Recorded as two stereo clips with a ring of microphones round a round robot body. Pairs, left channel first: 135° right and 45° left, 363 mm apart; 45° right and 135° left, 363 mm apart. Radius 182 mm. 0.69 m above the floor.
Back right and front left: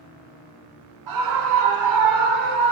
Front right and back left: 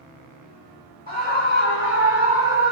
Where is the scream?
20° left, 1.8 m; by 2.7 s 10° right, 2 m.